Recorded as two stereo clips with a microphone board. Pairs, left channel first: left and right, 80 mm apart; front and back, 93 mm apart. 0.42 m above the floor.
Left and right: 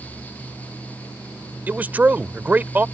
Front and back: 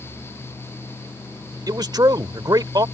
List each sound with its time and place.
1.7 s a man speaking: 155° right